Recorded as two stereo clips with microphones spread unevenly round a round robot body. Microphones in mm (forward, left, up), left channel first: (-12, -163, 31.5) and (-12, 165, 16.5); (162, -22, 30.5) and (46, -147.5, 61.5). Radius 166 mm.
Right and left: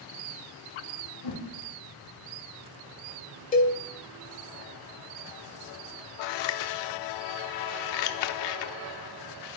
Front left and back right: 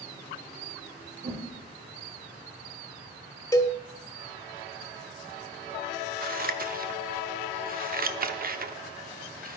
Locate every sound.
1.2 s a whoosh: 105° right, 5 m
3.5 s a cowbell: 25° right, 1.8 m
6.2 s scissors: 90° right, 0.9 m